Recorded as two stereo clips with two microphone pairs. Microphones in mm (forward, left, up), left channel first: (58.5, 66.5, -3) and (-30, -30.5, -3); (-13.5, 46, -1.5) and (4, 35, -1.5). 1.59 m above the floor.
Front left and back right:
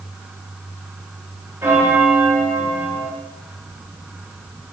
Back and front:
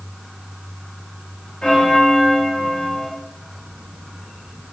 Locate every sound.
1.6 s a bell: 155° left, 0.9 m